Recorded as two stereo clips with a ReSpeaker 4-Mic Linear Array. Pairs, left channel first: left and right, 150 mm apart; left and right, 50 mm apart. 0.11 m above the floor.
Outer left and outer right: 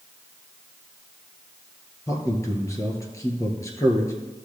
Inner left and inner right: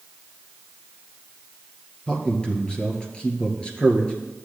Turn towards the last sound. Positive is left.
turn(degrees=20)  # may be behind; listen again after turning